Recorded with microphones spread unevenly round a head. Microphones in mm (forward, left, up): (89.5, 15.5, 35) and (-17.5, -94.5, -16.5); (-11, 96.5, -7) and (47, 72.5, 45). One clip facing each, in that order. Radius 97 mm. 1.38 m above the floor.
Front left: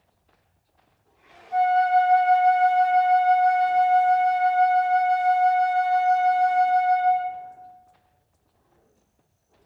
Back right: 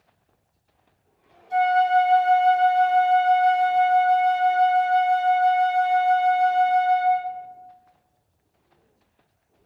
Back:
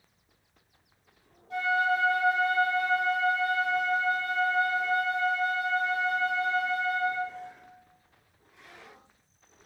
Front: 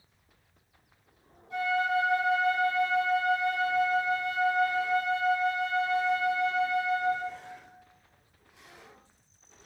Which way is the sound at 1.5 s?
140° right.